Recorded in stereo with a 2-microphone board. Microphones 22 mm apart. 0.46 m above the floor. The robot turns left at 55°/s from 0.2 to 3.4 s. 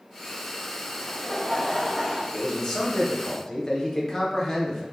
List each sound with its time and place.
1.0 s laughter: 80° left, 1.1 m; by 2.2 s 10° left, 1.1 m
2.3 s a man speaking: 125° left, 0.8 m; by 4.8 s 65° left, 0.8 m